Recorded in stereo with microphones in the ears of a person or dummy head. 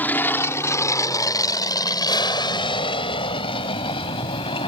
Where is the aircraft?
10° left (ahead or behind); by 4.7 s 30° left (ahead or behind).